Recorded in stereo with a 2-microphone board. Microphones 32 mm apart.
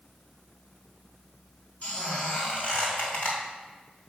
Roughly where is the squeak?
Left.